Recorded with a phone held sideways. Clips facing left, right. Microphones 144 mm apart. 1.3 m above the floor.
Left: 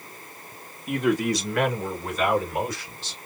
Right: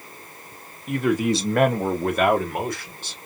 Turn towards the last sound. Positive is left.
turn(degrees=-50)  # may be behind; listen again after turning